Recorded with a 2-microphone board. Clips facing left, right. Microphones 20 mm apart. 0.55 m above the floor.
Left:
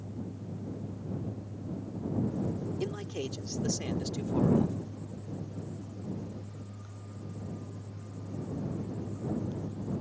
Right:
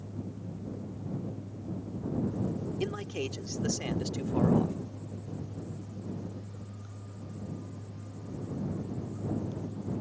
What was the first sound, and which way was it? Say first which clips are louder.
A man speaking: right 1 dB; 50° right (ahead or behind).